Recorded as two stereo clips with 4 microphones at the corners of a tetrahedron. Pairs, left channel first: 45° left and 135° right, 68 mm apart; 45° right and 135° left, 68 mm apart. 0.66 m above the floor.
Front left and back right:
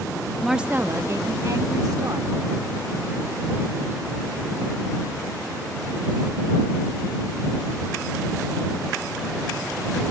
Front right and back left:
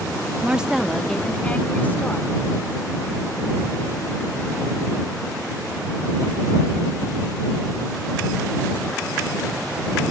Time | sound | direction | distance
0.4 | a woman speaking | 130° left | ?